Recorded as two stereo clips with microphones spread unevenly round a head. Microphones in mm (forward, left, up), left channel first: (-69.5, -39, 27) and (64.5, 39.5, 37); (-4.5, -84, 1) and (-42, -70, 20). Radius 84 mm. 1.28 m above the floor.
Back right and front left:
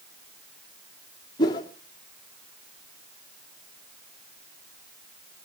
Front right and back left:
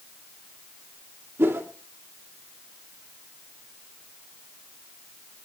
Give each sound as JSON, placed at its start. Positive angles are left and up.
{"t": 1.4, "sound": "a whoosh", "azimuth_deg": 145, "distance_m": 2.5}